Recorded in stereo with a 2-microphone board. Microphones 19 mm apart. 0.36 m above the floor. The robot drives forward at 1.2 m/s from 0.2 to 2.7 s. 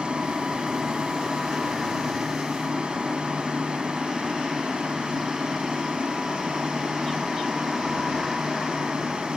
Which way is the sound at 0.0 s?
65° right (ahead or behind).